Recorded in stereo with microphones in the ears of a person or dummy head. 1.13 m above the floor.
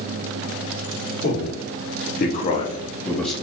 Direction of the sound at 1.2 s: 55° left (ahead or behind).